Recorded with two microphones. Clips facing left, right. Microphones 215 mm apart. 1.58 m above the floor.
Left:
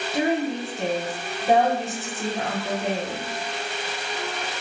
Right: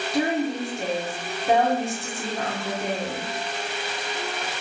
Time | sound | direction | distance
0.1 | a woman speaking | 5° left (ahead or behind) | 0.7 m